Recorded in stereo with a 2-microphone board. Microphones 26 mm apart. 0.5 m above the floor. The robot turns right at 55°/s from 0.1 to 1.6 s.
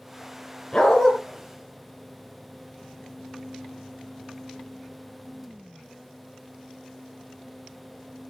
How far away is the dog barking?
About 3.5 m.